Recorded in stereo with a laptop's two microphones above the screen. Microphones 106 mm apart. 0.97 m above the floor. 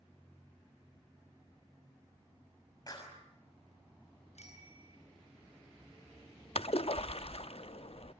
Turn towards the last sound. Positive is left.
turn(degrees=60)  # may be behind; listen again after turning